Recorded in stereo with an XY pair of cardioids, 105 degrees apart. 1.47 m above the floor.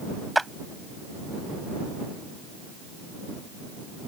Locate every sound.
0.3 s a clap: 10° right